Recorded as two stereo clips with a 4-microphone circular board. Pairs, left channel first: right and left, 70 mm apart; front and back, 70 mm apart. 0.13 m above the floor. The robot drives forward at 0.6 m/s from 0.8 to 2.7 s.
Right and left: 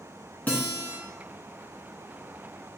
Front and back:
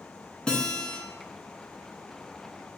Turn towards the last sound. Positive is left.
turn(degrees=-155)